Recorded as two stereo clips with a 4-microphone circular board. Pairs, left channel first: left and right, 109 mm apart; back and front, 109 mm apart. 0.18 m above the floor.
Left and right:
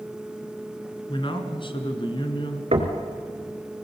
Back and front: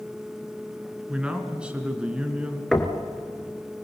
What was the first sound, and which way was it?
A man speaking, 80° left.